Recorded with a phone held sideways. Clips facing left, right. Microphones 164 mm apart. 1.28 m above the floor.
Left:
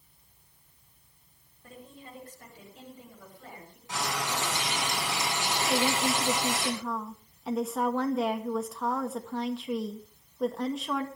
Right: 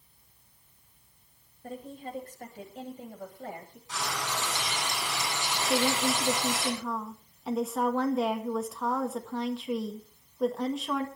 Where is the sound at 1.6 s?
40° right (ahead or behind), 7 m; by 3.8 s 50° right (ahead or behind), 8 m.